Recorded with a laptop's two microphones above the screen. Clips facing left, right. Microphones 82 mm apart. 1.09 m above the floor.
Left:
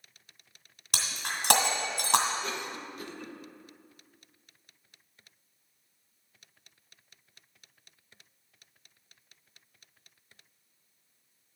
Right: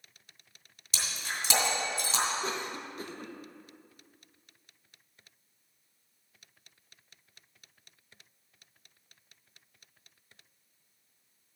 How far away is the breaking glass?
About 1.9 m.